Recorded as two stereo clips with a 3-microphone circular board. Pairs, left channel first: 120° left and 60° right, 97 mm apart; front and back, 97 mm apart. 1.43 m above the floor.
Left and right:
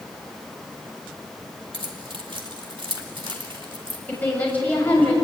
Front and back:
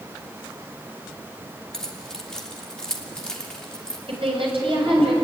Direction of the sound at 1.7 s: 80° right.